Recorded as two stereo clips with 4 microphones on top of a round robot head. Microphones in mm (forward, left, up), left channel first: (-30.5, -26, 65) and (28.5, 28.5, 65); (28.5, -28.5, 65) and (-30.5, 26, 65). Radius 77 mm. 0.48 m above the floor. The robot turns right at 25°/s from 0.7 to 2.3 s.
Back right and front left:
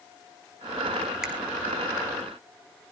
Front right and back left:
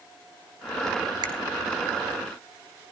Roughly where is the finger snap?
Behind left.